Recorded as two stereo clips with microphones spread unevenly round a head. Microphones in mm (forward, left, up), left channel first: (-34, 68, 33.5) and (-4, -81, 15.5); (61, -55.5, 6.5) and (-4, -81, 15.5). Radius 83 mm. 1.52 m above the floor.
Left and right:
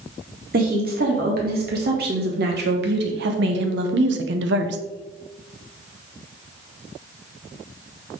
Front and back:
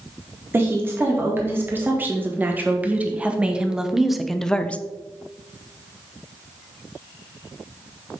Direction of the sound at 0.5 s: 105° right.